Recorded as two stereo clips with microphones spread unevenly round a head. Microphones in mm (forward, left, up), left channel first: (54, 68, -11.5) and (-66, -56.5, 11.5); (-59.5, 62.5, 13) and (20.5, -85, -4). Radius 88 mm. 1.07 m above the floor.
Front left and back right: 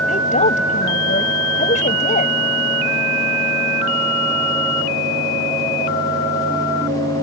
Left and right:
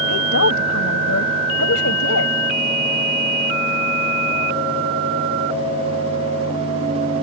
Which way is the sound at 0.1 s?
100° left.